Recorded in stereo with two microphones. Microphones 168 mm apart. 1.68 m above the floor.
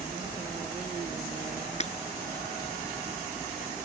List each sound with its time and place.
1.8 s breaking glass: 40° left (ahead or behind)